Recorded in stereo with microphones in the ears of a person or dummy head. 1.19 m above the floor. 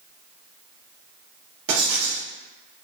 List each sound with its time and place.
1.7 s writing: 65° right (ahead or behind), 1.1 m